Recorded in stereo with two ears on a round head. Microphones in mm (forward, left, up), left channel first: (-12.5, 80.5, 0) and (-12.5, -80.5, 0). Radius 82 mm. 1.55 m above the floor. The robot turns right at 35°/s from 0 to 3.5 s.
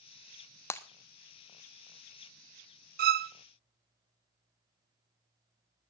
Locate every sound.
0.7 s breaking glass: 15° left (ahead or behind), 1.0 m
3.0 s a violin: 55° right (ahead or behind), 0.5 m